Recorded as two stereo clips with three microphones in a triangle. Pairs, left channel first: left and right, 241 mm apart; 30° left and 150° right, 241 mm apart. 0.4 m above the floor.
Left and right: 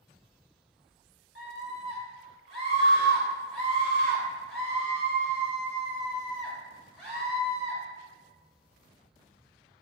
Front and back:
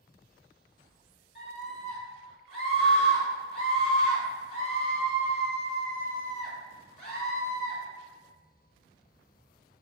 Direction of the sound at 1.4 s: 5° left.